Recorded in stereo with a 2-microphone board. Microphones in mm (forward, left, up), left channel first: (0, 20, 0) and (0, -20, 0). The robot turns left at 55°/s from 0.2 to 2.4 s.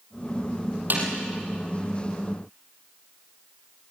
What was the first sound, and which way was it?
A snare drum, 50° right (ahead or behind).